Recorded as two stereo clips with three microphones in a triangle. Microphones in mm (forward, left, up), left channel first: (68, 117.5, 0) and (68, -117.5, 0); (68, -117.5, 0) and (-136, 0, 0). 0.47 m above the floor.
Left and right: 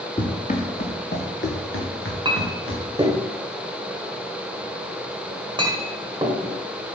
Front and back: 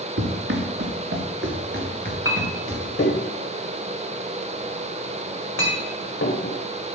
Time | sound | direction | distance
0.2 | running footsteps | 155° left | 2 m
2.2 | a clink | 20° right | 1.2 m